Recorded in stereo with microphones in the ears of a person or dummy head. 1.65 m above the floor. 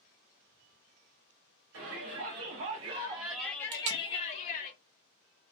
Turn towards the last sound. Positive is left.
turn(degrees=-40)  # may be behind; listen again after turning